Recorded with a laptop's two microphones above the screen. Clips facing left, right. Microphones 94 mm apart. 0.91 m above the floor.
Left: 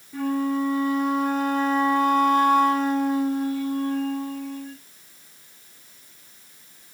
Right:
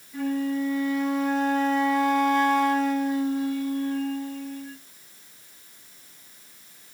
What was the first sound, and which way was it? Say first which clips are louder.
A flute: left 2 dB; 55° left (ahead or behind).